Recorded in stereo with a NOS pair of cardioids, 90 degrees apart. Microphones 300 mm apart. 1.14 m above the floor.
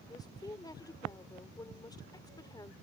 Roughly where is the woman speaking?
Ahead.